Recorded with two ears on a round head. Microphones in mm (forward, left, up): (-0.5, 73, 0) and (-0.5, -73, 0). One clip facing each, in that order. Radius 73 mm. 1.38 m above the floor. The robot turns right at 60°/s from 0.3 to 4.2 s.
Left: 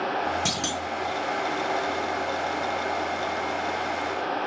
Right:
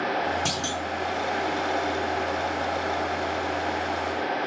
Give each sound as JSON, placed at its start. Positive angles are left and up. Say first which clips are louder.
{"t": 0.5, "sound": "a clunk", "louder": "even", "side_deg": 10, "distance_m": 0.7}